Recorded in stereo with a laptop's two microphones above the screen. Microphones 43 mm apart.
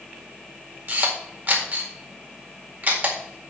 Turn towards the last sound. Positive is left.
turn(degrees=-45)  # may be behind; listen again after turning